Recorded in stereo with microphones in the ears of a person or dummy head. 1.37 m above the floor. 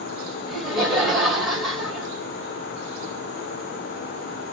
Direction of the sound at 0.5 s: Centre (ahead or behind).